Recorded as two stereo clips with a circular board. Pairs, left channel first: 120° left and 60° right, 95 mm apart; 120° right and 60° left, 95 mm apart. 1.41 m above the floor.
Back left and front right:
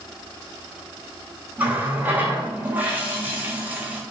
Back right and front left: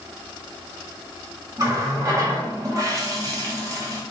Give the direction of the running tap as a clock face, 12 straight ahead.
12 o'clock.